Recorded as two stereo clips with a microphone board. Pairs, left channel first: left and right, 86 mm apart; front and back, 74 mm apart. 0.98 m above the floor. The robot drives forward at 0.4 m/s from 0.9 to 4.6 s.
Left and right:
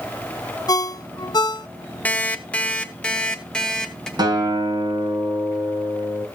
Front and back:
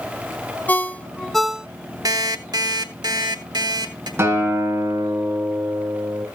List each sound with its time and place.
0.7 s a ringtone: 60° left, 0.5 m; by 1.7 s 105° left, 0.5 m
2.0 s an alarm clock: 160° left, 0.8 m; by 4.1 s 170° left, 1.6 m
4.2 s a guitar: 125° right, 2.5 m